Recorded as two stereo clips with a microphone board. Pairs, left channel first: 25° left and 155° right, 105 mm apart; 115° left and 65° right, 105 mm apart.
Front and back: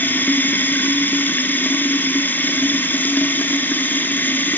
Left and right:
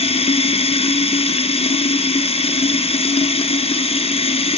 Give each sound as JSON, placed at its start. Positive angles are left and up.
{"t": 0.0, "sound": "running water", "azimuth_deg": 95, "distance_m": 1.6}